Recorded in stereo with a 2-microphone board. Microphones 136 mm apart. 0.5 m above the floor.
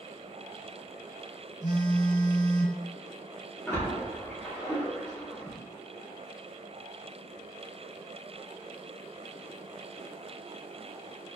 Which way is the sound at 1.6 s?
70° left (ahead or behind).